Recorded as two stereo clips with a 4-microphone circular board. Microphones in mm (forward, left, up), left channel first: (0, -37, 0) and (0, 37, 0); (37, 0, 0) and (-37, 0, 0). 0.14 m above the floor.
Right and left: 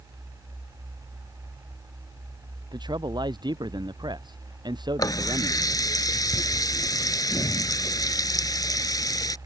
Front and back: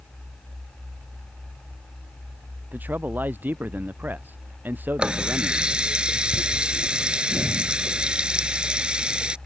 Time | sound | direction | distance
2.7 | a man speaking | 115° left | ?
5.0 | a running tap | 105° right | ?